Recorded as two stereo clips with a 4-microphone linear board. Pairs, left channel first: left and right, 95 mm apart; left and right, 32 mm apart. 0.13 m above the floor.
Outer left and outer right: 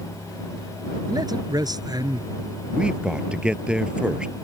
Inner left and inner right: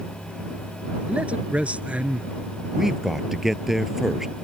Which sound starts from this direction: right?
A man speaking, at 1.1 s.